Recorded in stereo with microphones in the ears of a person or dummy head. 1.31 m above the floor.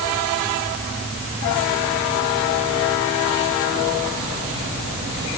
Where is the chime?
I don't hear a chime.